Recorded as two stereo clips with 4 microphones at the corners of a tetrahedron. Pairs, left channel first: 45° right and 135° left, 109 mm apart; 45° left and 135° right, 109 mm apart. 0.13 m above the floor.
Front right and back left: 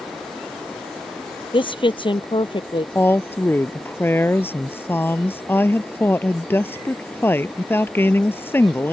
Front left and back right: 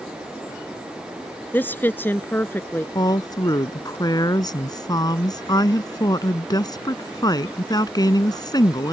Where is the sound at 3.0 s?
15° left.